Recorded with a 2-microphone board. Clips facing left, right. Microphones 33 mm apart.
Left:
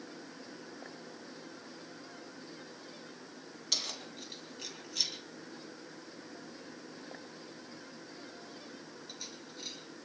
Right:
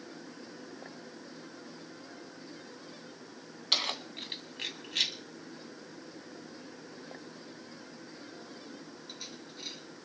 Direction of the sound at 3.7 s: 50° right (ahead or behind).